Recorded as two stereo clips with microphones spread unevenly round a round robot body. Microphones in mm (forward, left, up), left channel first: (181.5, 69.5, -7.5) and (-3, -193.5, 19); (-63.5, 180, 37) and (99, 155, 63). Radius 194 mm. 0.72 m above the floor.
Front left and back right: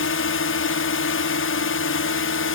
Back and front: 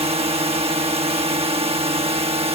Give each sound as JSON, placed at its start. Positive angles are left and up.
{"t": 0.0, "sound": "a drone", "azimuth_deg": 35}